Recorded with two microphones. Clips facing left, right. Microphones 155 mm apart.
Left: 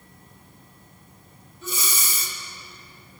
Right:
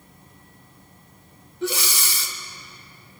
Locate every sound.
1.6 s breathing: 70° right (ahead or behind), 0.7 m